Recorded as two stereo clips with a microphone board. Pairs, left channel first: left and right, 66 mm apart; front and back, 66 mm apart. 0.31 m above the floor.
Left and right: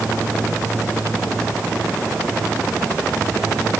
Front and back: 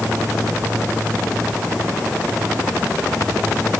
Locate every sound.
Only background noise.